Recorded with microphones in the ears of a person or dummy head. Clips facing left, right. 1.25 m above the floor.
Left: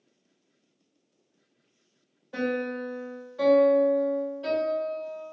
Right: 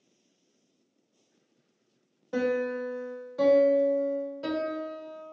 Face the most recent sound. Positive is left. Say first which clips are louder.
# right 2 dB
turn(degrees=-55)  # may be behind; listen again after turning